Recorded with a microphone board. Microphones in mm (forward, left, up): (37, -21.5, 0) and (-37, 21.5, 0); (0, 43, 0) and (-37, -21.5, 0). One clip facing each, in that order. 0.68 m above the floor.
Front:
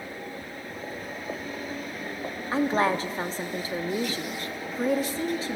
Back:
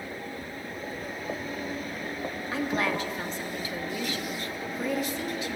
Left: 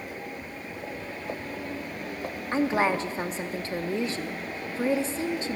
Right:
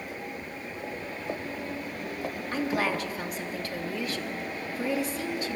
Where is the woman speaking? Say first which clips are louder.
Front 5 dB, left 5 dB; 10° left, 1.0 m.